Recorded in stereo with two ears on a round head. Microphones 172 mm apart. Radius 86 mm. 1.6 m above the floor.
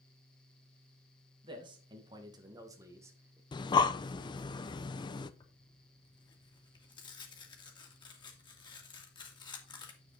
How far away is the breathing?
About 0.6 m.